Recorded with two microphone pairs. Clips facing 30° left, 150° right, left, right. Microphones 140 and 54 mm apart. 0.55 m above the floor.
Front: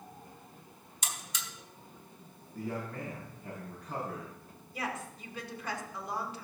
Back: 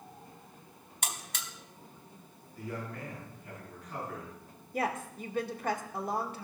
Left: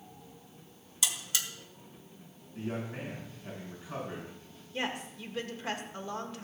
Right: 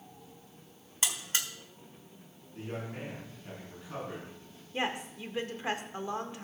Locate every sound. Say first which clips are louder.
1.0 s a buzzer: back 2 dB, right 1 dB; 135° right, 1.5 m
2.5 s a man speaking: front 2 dB, left 2 dB; 10° left, 7.5 m
4.7 s a woman speaking: back 5 dB, right 2 dB; 150° right, 1.8 m